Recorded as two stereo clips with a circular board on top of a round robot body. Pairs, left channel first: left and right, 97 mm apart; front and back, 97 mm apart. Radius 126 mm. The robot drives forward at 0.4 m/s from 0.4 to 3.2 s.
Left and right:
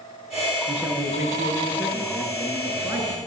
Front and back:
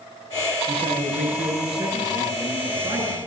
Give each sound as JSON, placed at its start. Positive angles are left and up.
{"t": 0.7, "sound": "a man speaking", "azimuth_deg": -165, "distance_m": 8.5}